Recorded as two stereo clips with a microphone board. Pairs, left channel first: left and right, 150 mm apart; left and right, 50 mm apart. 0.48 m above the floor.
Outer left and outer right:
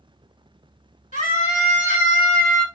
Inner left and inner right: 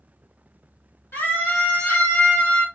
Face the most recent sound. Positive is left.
turn(degrees=30)  # may be behind; listen again after turning